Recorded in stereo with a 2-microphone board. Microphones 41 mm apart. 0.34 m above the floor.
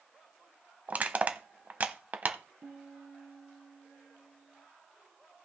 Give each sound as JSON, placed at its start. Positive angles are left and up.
{"t": 0.9, "sound": "crushing", "side_deg": -40, "distance_m": 0.8}
{"t": 2.6, "sound": "a piano", "side_deg": -75, "distance_m": 2.0}